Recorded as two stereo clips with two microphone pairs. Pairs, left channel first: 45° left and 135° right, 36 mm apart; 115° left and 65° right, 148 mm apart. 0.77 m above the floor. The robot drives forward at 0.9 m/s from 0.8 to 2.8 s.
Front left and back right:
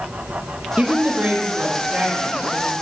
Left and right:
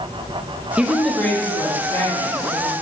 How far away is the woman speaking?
About 0.5 m.